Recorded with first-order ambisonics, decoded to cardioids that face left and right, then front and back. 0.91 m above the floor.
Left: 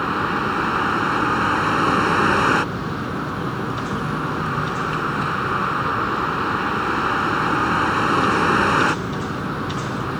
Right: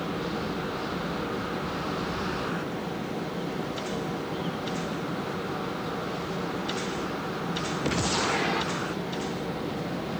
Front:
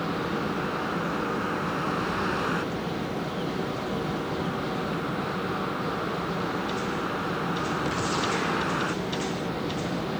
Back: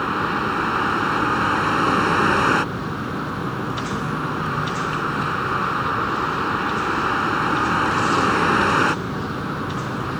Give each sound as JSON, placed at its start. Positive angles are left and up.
{"t": 0.0, "sound": "a vehicle", "azimuth_deg": 125}